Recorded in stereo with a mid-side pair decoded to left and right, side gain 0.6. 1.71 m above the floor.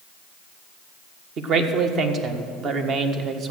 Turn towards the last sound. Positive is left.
turn(degrees=-50)